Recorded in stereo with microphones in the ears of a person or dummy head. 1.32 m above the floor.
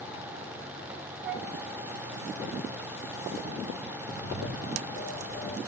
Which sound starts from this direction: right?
A flute, at 1.2 s.